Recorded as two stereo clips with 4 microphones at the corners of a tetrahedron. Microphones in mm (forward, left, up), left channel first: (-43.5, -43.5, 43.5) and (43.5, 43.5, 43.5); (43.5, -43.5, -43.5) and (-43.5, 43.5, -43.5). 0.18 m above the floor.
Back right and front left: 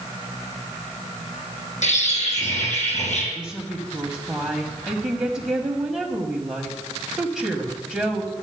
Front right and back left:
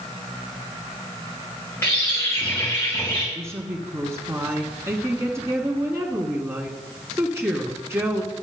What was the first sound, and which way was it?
A bird, 115° right.